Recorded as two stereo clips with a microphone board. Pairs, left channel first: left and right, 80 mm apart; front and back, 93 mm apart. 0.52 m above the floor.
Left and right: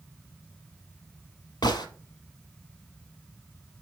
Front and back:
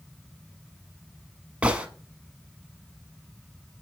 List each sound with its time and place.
1.6 s a gunshot: 105° left, 0.7 m